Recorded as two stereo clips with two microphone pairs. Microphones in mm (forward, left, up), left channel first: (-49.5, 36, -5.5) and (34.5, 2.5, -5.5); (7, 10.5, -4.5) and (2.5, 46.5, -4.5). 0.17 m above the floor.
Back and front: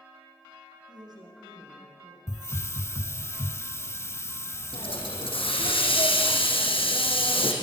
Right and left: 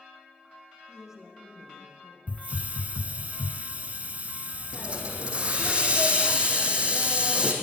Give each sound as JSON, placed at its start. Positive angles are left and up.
{"t": 0.9, "sound": "a woman speaking", "azimuth_deg": 15, "distance_m": 8.0}
{"t": 2.3, "sound": "a hiss", "azimuth_deg": 110, "distance_m": 0.5}
{"t": 4.7, "sound": "a hiss", "azimuth_deg": 150, "distance_m": 4.0}